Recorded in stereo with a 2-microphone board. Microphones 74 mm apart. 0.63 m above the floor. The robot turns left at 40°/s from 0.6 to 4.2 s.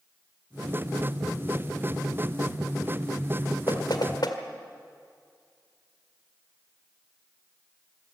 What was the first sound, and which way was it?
Knocking, 70° left (ahead or behind).